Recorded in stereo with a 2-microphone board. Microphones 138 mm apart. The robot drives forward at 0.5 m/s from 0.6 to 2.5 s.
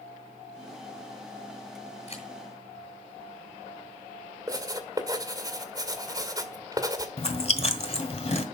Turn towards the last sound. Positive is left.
turn(degrees=50)  # may be behind; listen again after turning